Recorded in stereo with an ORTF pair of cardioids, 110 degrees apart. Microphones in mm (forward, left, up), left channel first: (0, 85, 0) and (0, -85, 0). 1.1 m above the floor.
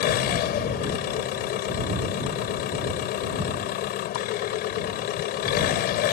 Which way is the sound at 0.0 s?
70° left.